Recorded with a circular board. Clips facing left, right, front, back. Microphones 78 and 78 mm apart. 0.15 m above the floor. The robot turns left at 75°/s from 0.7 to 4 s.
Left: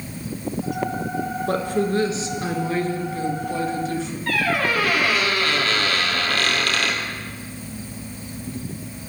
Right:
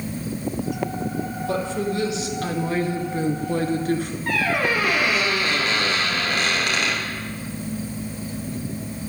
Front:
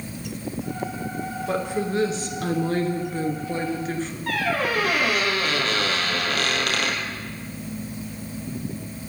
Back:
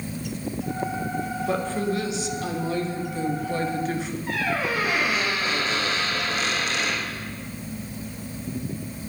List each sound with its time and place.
1.5 s a woman speaking: 90° left, 1.9 m; by 4.2 s 100° right, 1.9 m
4.3 s a squeak: 20° right, 2.5 m